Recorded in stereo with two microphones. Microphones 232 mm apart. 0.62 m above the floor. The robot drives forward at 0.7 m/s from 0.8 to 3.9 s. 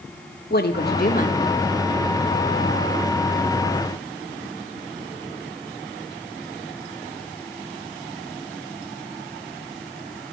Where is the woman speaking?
50° left (ahead or behind), 1.2 m; by 1.6 s 35° left (ahead or behind), 1.6 m.